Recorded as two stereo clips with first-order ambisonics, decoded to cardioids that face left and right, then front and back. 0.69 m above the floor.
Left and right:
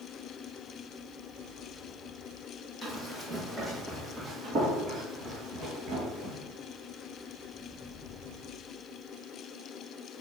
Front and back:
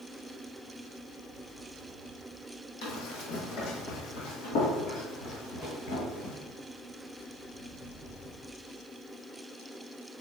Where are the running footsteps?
10° left, 1.7 m; by 6.4 s 40° right, 2.5 m.